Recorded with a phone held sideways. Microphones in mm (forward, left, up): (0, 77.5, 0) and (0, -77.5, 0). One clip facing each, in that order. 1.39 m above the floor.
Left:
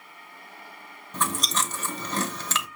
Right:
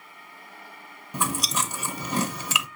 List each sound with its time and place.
1.1 s chewing: 10° right (ahead or behind), 0.8 m